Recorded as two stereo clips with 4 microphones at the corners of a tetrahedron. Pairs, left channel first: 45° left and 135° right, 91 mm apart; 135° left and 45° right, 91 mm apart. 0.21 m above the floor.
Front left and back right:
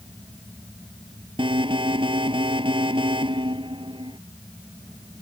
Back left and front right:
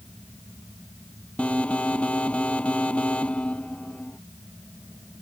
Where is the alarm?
150° right.